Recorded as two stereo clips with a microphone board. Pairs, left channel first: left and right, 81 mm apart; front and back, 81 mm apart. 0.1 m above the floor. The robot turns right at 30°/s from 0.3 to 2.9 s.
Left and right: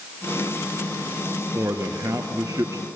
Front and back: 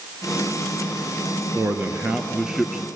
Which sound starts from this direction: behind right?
A man speaking, at 1.6 s.